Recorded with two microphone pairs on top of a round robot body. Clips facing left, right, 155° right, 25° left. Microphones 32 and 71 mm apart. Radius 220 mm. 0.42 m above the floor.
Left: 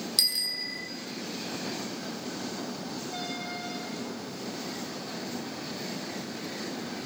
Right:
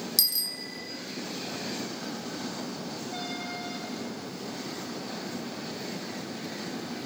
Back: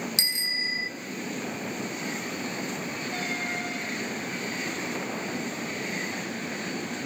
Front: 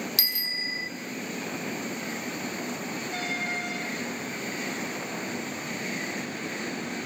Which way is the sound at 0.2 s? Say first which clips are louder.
Left 2 dB, back 2 dB; 145° left.